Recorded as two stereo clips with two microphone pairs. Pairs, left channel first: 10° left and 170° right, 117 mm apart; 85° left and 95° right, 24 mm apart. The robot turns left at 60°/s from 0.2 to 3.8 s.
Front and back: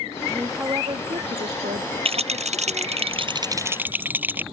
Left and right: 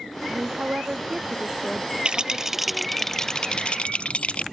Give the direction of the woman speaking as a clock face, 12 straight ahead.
3 o'clock.